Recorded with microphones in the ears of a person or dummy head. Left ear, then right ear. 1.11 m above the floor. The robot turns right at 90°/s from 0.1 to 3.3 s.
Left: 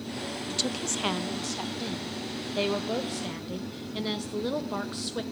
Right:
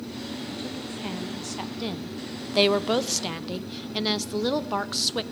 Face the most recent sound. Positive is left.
turn(degrees=-30)